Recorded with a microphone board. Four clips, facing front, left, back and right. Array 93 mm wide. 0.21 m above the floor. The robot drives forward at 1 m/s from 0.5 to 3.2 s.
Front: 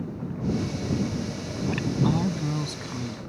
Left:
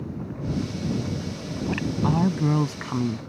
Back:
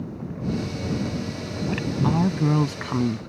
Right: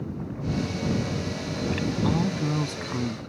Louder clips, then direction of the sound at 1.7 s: Left 1 dB, back 1 dB; 95° left.